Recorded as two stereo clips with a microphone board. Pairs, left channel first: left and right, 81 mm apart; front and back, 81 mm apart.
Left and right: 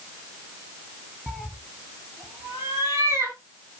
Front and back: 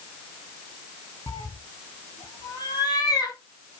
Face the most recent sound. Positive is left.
turn(degrees=-45)